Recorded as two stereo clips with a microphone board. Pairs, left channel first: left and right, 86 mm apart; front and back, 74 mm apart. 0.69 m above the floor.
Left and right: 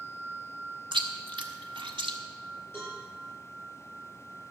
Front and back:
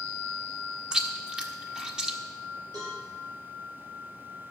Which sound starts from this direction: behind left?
A cowbell, at 2.7 s.